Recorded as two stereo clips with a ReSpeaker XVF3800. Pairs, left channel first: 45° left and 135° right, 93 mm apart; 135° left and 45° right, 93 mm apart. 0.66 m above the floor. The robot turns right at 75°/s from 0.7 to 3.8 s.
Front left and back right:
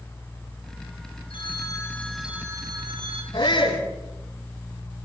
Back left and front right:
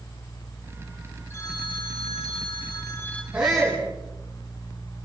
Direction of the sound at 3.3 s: 25° left.